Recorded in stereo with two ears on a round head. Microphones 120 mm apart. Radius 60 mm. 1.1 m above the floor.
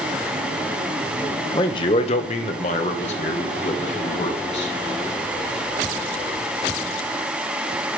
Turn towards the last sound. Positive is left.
turn(degrees=45)  # may be behind; listen again after turning